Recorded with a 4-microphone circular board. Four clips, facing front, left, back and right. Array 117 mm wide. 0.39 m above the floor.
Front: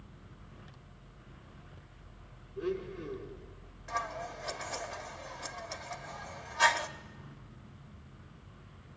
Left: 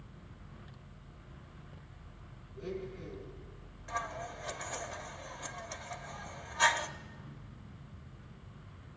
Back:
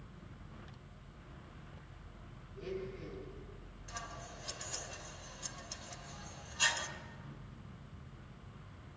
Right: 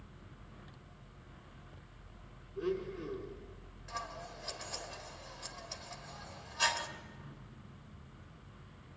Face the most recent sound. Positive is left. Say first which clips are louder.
# left 5 dB, front 11 dB
turn(degrees=30)